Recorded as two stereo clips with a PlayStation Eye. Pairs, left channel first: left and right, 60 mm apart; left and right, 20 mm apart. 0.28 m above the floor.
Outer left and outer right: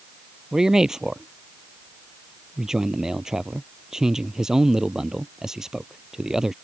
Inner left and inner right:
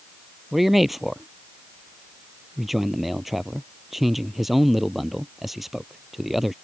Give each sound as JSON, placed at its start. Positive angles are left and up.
{"t": 0.5, "sound": "a man speaking", "side_deg": -10}